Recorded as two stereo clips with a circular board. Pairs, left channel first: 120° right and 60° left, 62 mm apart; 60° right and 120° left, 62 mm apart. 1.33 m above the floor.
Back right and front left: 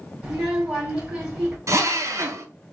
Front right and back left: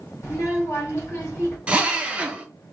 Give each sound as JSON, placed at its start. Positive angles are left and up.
{"t": 0.2, "sound": "a child speaking", "azimuth_deg": -10, "distance_m": 2.0}
{"t": 1.7, "sound": "a drill", "azimuth_deg": 55, "distance_m": 0.7}